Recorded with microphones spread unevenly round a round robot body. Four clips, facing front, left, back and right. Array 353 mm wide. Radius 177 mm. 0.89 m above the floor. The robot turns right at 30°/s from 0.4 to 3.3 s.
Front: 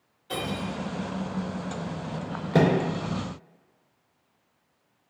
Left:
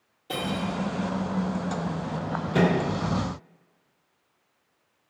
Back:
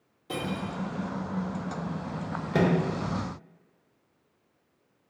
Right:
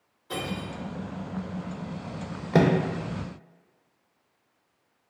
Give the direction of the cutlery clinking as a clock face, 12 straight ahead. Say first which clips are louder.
Left 4 dB, front 1 dB; 7 o'clock.